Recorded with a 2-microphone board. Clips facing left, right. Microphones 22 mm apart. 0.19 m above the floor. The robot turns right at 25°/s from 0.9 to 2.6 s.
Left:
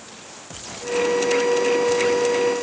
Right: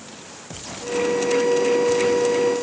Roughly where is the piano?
I don't hear a piano.